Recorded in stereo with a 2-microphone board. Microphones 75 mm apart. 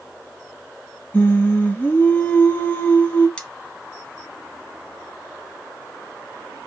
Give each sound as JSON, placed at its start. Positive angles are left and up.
{"t": 1.1, "sound": "singing", "side_deg": 25, "distance_m": 1.1}
{"t": 3.4, "sound": "cutlery clinking", "side_deg": 15, "distance_m": 0.7}